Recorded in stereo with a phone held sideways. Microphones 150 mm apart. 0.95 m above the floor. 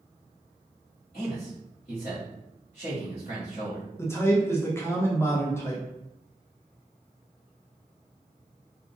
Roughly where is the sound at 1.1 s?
Left.